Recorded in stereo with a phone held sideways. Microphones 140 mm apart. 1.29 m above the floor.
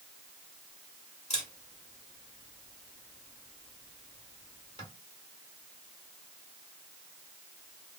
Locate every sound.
1.3 s a camera shutter: 50° left (ahead or behind), 1.7 m